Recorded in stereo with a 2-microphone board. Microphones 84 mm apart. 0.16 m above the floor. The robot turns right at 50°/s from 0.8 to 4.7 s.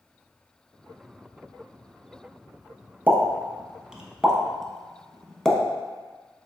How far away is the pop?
About 0.5 m.